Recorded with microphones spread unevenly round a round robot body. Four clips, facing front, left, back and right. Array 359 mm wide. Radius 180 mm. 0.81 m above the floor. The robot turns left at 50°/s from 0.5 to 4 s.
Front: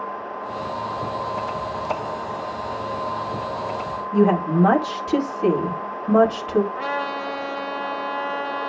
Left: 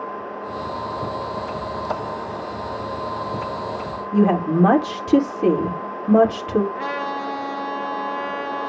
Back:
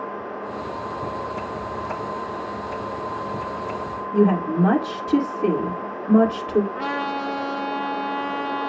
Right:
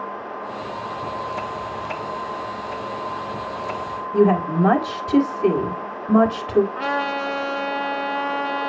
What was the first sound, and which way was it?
A woman speaking, 65° left.